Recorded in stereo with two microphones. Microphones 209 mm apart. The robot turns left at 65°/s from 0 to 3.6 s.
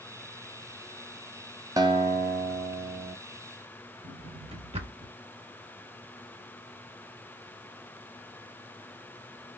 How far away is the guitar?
About 0.6 m.